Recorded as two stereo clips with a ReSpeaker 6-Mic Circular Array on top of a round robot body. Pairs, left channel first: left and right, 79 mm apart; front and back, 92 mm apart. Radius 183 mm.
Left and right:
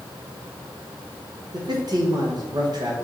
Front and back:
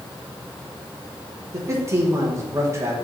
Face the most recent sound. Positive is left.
turn(degrees=-120)